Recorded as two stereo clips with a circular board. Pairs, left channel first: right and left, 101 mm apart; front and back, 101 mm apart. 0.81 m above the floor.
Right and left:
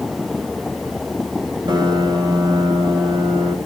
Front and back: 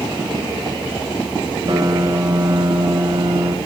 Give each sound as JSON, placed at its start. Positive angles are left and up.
{"t": 1.7, "sound": "a piano", "azimuth_deg": 135, "distance_m": 1.7}